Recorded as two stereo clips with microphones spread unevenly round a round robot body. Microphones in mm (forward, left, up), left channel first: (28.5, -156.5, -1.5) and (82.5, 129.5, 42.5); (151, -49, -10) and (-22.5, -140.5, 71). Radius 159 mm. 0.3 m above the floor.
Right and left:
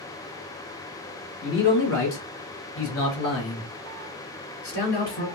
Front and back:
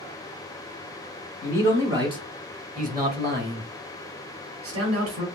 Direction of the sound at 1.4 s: 60° right.